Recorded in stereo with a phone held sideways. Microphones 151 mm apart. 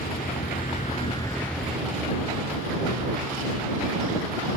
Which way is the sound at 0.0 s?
80° left.